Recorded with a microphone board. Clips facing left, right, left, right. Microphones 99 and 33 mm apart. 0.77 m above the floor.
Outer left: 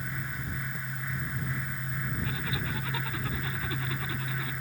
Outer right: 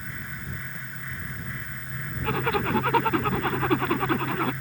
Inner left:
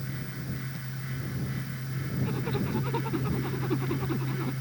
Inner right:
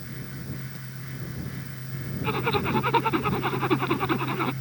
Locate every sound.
2.2 s a zipper: 60° right (ahead or behind)